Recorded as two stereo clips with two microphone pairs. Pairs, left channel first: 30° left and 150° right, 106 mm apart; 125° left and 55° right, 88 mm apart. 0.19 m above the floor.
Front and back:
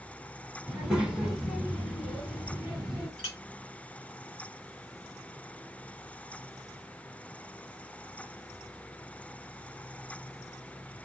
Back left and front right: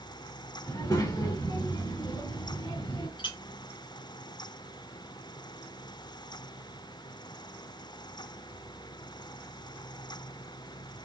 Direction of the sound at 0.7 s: 135° left.